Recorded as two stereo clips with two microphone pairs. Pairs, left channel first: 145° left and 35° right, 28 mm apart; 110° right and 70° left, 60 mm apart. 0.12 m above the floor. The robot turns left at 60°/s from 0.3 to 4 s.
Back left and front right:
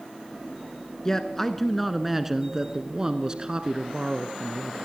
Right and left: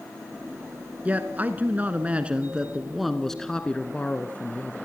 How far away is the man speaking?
About 1.1 m.